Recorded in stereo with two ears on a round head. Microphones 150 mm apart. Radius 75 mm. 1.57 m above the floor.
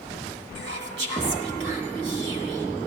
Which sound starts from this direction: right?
Whispering, at 0.6 s.